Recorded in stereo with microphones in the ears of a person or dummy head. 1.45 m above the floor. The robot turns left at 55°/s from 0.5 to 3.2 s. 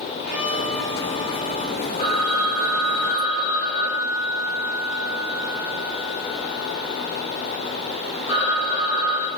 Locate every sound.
0.2 s a violin: 170° right, 5.5 m; by 1.8 s 120° left, 5.5 m
2.0 s a phone ringing: 135° left, 3 m; by 9.3 s 65° left, 3 m